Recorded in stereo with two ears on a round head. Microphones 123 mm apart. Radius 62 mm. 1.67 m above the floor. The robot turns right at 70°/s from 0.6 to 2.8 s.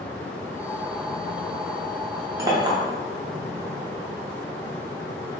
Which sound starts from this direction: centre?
A clink, at 2.4 s.